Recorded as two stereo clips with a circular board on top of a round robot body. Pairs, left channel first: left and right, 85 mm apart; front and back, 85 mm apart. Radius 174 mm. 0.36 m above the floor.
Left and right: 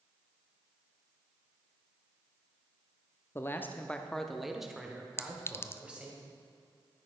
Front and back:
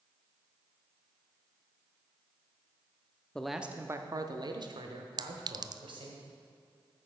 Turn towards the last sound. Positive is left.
turn(degrees=150)